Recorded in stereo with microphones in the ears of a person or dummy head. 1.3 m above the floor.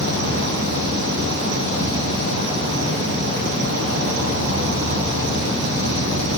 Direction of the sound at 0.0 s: 70° right (ahead or behind).